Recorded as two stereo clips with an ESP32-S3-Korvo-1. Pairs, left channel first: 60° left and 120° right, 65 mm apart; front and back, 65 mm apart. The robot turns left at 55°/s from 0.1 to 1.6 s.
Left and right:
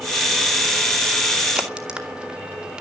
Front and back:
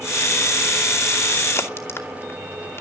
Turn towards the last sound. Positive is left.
turn(degrees=-45)